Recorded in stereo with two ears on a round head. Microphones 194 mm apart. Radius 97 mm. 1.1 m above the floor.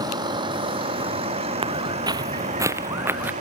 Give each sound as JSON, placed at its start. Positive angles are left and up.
{"t": 0.0, "sound": "a vehicle", "side_deg": -20}
{"t": 1.6, "sound": "footsteps", "side_deg": -25}